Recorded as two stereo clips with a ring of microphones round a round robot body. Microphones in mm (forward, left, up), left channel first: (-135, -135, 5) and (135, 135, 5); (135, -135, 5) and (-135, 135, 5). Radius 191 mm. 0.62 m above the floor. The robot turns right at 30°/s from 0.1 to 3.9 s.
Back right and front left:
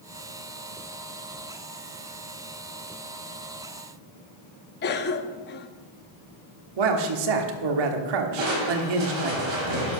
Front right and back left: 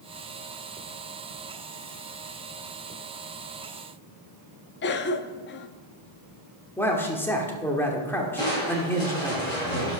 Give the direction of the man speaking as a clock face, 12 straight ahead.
11 o'clock.